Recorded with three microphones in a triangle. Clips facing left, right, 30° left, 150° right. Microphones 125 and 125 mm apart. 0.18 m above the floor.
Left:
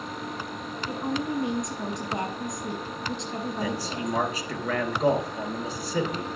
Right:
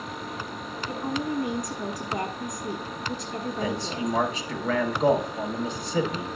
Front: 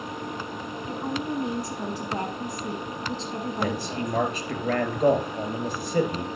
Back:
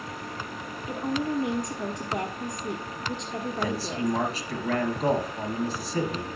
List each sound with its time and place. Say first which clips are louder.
0.9 s a woman speaking: even, back 2 dB; 50° left, 1.3 m
3.6 s a man speaking: right 3 dB, back 1 dB; 5° left, 3 m